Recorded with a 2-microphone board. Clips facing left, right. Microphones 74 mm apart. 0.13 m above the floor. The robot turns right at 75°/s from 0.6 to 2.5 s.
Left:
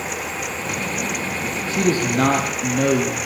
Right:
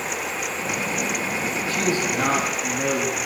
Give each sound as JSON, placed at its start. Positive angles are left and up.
{"t": 1.7, "sound": "a man speaking", "azimuth_deg": 25, "distance_m": 4.5}